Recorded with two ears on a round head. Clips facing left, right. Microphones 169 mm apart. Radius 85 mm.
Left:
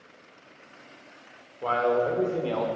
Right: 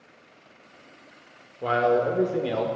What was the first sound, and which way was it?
A man speaking, 20° right (ahead or behind).